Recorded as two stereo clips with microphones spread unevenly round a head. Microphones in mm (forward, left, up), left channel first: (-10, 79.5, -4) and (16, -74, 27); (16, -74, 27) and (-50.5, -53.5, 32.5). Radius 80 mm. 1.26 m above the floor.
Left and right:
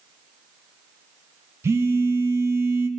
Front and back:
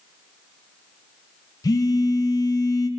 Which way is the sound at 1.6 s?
Straight ahead.